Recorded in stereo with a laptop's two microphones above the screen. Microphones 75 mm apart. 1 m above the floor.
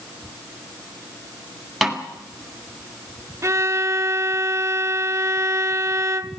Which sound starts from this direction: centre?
A snare drum, at 1.8 s.